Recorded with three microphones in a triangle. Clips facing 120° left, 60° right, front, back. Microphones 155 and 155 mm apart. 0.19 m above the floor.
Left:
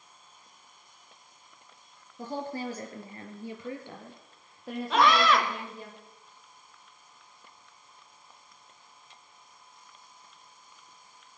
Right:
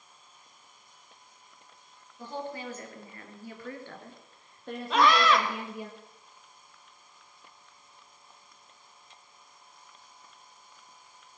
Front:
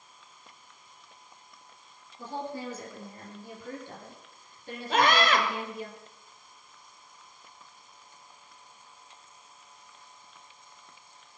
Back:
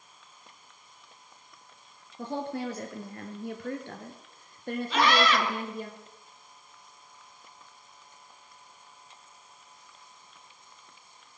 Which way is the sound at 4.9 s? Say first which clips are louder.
Even, front 1 dB; 30° left.